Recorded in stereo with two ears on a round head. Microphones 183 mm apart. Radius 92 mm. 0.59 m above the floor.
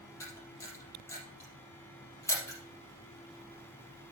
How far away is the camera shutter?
About 4 m.